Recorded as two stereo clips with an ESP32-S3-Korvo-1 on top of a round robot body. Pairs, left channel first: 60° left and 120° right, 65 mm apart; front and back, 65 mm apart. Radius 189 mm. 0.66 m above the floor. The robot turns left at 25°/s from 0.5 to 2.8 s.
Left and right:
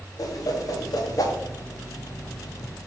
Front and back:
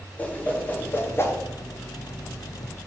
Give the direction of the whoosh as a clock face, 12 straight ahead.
10 o'clock.